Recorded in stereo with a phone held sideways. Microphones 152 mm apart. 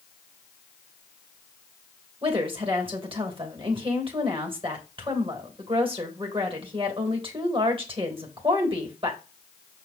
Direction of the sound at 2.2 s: 35° right (ahead or behind).